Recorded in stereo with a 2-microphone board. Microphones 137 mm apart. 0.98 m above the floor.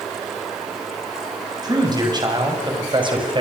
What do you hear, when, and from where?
1.6 s a man speaking: 30° right (ahead or behind), 7.5 m; by 3.4 s 35° right (ahead or behind), 5 m